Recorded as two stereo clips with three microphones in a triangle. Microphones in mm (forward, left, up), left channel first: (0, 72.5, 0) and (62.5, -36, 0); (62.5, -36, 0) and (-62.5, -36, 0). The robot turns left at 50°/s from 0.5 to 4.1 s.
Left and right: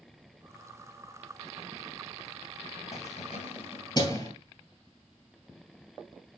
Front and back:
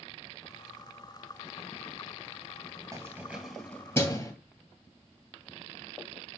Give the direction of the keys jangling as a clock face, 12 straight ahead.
8 o'clock.